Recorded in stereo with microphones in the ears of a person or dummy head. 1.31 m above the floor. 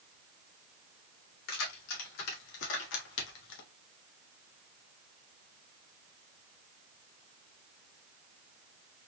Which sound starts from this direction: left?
Keys jangling, at 1.5 s.